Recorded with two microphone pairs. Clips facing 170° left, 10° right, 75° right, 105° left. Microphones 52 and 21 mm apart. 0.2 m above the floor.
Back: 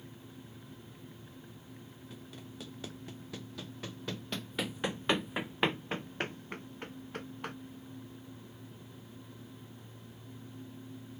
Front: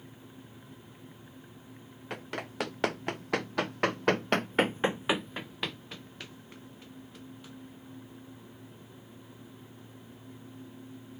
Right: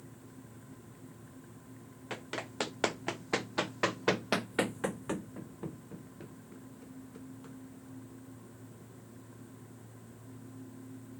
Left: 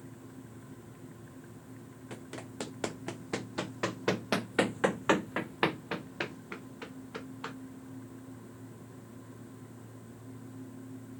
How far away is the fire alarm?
I don't hear a fire alarm.